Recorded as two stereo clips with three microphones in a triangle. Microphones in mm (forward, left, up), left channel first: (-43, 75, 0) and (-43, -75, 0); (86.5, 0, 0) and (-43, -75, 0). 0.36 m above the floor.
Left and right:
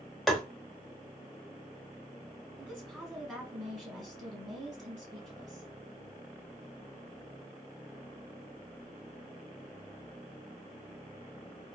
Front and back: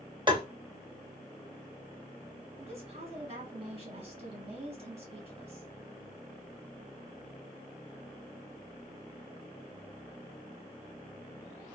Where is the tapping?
Straight behind, 0.9 m.